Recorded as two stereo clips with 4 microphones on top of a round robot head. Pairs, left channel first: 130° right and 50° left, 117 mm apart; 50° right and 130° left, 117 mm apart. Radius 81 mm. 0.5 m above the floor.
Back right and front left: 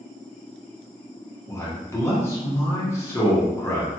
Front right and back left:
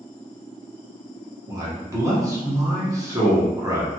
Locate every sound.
1.5 s a man speaking: 175° left, 1.3 m